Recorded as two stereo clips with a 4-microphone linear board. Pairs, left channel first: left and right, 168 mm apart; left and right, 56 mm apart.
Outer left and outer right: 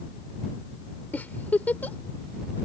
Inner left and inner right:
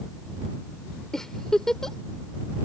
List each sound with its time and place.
1.1 s a giggle: 10° left (ahead or behind)